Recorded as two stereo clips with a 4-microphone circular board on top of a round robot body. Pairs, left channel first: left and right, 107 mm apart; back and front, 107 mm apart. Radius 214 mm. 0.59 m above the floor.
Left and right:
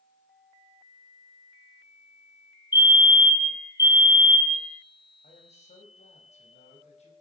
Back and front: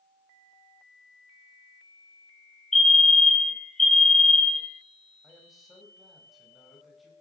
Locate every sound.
2.7 s a fire alarm: 95° left, 2 m
5.2 s a man speaking: 90° left, 4.5 m